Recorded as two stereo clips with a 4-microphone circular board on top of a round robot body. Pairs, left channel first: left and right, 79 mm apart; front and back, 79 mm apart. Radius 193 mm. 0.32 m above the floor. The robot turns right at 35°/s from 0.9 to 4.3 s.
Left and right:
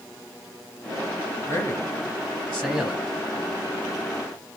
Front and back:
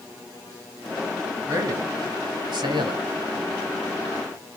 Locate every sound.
1.5 s a man speaking: 130° left, 3.5 m; by 3.1 s 175° right, 3.5 m